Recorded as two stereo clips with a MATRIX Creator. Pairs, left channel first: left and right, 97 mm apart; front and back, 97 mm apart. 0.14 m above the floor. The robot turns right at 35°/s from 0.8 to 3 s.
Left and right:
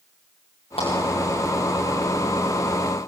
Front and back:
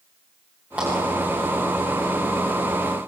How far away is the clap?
About 9.5 m.